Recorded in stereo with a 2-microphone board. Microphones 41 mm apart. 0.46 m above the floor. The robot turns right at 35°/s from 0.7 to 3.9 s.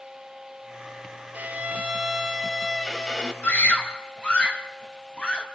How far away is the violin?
About 3 m.